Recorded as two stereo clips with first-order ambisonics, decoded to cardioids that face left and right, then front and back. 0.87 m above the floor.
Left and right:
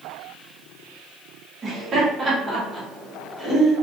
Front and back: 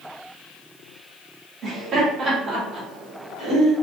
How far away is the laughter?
About 1.0 m.